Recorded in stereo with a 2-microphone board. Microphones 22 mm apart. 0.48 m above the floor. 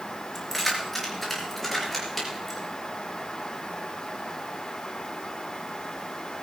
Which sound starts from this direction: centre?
Keys jangling, at 0.3 s.